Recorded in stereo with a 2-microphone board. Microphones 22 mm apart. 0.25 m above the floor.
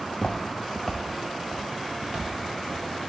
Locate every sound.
0.1 s footsteps: 45° left (ahead or behind), 0.6 m; by 3.1 s 35° right (ahead or behind), 2.5 m